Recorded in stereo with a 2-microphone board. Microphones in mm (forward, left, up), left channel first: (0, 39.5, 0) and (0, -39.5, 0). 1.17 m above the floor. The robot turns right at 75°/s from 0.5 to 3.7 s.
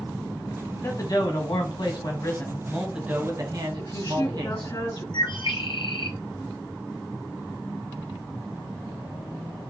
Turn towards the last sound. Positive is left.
turn(degrees=70)  # may be behind; listen again after turning